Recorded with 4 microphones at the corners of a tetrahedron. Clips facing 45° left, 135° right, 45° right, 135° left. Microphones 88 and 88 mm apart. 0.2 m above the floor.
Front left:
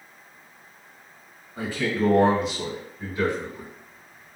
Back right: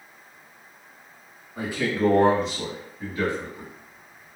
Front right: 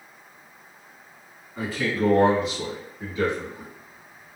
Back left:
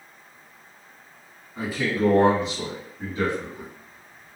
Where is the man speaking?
155° right, 1.3 m; by 3.7 s 100° left, 2.0 m.